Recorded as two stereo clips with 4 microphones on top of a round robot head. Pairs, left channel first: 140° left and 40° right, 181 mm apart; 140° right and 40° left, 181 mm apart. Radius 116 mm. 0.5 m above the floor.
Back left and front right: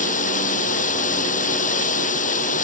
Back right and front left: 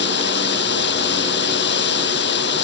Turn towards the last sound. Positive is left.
turn(degrees=-170)